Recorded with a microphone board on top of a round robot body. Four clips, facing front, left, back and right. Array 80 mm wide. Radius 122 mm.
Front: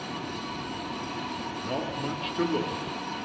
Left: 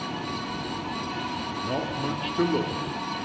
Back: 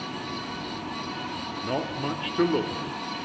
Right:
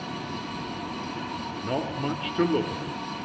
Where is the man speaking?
135° right, 0.9 m.